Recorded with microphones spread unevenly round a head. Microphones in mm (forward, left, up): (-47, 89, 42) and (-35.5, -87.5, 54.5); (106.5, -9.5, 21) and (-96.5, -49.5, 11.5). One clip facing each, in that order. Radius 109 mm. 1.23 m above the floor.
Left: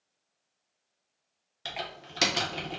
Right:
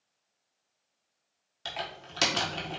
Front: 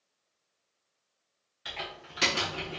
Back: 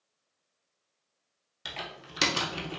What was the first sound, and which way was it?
Typing on a keyboard, 170° left.